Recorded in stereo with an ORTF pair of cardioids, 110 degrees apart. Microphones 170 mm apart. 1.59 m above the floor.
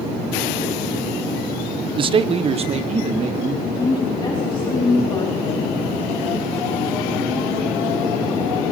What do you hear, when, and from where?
2.0 s a man speaking: 30° right, 0.5 m; by 3.5 s 40° right, 3 m
3.6 s a woman speaking: 30° left, 3.5 m